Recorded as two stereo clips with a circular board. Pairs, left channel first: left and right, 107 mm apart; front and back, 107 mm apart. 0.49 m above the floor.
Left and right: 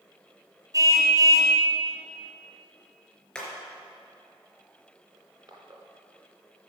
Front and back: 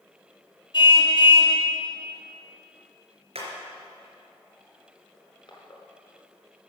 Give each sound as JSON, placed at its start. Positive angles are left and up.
{"t": 0.7, "sound": "a car horn", "azimuth_deg": -35, "distance_m": 2.0}
{"t": 3.4, "sound": "hammering", "azimuth_deg": 170, "distance_m": 4.0}
{"t": 5.1, "sound": "crushing", "azimuth_deg": -45, "distance_m": 2.5}